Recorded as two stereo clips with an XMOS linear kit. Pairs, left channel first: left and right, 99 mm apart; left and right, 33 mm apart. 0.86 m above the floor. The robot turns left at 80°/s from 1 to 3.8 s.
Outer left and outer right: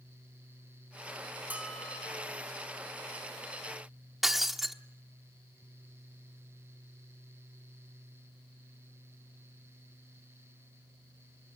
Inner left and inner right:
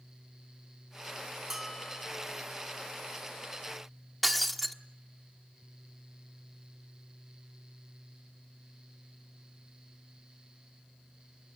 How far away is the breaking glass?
About 1.1 m.